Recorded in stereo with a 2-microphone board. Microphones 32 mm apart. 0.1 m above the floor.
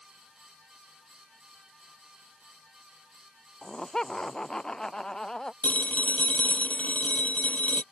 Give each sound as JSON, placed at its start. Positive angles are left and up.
{"t": 3.6, "sound": "laughter", "side_deg": 25}
{"t": 5.6, "sound": "a phone ringing", "side_deg": 55}